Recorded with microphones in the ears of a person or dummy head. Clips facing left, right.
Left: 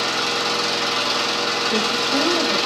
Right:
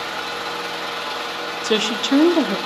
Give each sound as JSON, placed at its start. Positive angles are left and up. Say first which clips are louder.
{"t": 0.0, "sound": "an engine running", "louder": "left 5 dB", "side_deg": 55, "distance_m": 1.2}
{"t": 1.6, "sound": "a woman speaking", "louder": "right 7 dB", "side_deg": -60, "distance_m": 1.1}